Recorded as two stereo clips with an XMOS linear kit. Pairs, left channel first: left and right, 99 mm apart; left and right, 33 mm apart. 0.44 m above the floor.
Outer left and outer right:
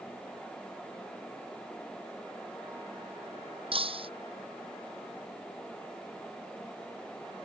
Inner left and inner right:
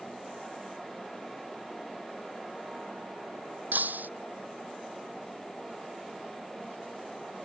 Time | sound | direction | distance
3.7 | breaking glass | 65° right (ahead or behind) | ?